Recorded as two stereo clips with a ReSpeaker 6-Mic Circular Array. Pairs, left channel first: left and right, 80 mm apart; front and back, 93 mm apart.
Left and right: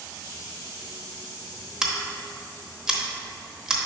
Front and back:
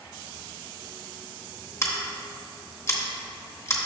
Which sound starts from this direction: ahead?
Scissors, at 1.8 s.